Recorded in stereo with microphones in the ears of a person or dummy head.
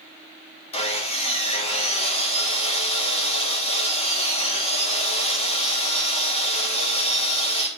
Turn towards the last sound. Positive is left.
turn(degrees=30)  # may be behind; listen again after turning